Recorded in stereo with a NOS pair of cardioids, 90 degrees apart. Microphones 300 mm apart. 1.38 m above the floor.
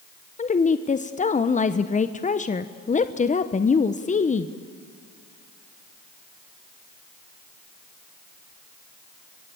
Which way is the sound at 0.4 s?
25° left.